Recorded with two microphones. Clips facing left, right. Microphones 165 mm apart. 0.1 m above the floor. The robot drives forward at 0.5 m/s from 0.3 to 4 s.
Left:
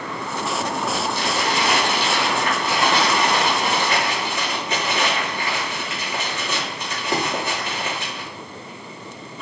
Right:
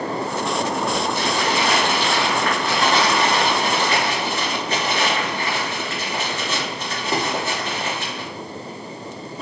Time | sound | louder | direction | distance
1.1 | crumpling | right 2 dB | 25° left (ahead or behind) | 2.0 m